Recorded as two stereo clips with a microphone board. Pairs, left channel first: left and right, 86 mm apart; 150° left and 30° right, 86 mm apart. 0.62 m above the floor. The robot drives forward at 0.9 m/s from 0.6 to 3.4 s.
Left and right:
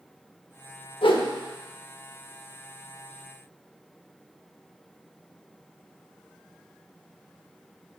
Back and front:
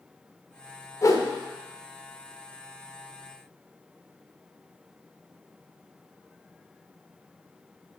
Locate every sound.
1.0 s a whoosh: 100° left, 0.9 m; by 1.3 s 115° left, 1.0 m